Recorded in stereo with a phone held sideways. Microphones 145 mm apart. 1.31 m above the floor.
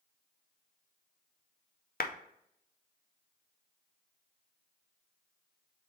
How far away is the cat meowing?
No cat meowing in this recording.